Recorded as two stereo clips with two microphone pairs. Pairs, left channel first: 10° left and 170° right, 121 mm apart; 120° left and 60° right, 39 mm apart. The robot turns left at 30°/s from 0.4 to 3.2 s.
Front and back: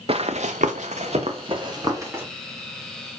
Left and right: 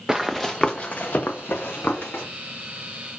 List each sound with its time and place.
0.1 s running footsteps: 140° right, 0.6 m; by 2.2 s 115° left, 1.9 m